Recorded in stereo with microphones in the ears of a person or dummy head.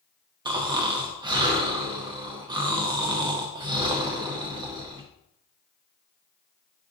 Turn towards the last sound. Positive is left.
turn(degrees=-20)  # may be behind; listen again after turning